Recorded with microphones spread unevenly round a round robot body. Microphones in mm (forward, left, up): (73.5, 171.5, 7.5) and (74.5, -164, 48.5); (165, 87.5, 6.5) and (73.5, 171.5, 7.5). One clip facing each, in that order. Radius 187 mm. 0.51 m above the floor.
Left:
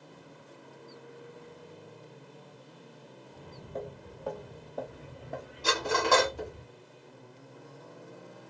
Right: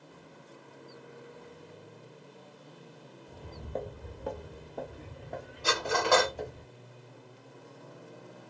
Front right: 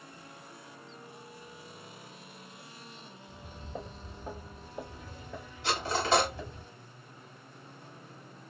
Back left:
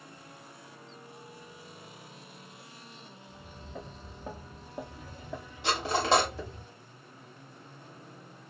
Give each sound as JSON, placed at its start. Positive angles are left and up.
{"t": 3.3, "sound": "footsteps", "azimuth_deg": -90, "distance_m": 0.8}
{"t": 5.6, "sound": "cutlery clinking", "azimuth_deg": 150, "distance_m": 1.3}